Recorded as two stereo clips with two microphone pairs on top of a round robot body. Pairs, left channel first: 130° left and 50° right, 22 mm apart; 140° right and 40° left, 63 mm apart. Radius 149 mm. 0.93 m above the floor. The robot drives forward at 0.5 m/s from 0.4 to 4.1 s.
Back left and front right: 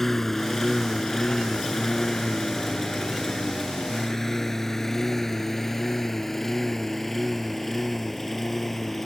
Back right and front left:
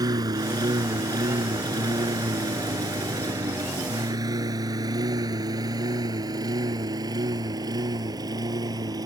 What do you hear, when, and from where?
0.0 s a lawn mower: 50° left; by 9.1 s 45° left